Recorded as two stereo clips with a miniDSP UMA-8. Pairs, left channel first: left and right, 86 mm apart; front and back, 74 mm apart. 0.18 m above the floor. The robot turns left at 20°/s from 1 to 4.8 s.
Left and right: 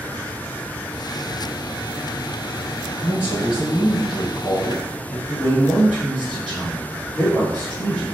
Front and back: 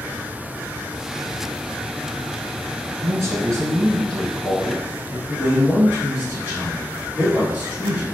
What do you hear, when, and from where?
3.0 s a man speaking: 150° right, 1.7 m; by 5.2 s 175° left, 1.7 m
5.3 s a man speaking: 150° left, 1.7 m